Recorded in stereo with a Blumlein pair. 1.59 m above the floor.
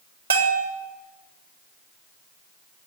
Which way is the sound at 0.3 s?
70° right.